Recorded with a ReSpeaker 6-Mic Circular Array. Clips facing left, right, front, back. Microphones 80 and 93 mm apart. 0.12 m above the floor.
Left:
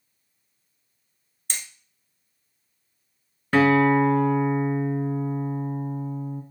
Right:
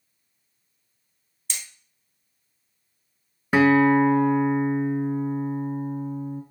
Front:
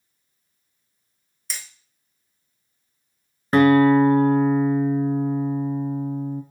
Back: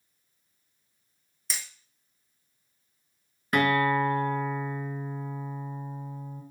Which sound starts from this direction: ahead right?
A guitar, at 3.5 s.